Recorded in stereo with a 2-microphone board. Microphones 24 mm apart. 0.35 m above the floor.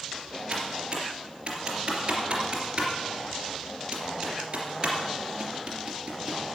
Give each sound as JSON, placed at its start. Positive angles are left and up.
{"t": 0.5, "sound": "typing on a keyboard", "side_deg": -40, "distance_m": 3.0}